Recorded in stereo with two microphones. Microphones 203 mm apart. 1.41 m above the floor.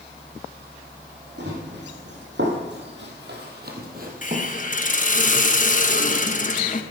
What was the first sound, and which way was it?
Running footsteps, 60° right (ahead or behind).